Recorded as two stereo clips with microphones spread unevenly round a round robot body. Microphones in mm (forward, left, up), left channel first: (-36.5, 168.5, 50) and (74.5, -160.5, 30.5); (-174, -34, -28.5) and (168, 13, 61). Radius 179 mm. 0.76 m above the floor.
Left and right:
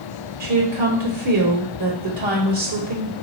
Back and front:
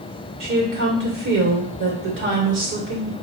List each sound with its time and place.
0.4 s a woman speaking: 50° right, 2 m